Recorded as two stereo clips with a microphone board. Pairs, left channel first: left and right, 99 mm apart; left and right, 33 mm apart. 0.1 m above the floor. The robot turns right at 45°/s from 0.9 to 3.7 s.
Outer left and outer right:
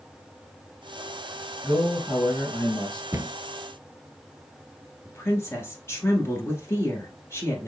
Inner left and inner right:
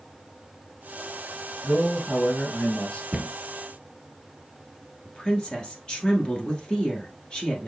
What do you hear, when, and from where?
1.6 s a man speaking: 10° left, 2.5 m; by 3.0 s 70° left, 2.5 m
3.1 s a cupboard door: 30° right (ahead or behind), 0.8 m; by 3.3 s 25° right (ahead or behind), 0.8 m
5.0 s a woman speaking: 25° left (ahead or behind), 1.6 m